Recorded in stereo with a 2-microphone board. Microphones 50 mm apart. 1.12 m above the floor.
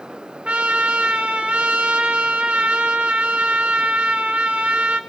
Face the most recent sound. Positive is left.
turn(degrees=-25)  # may be behind; listen again after turning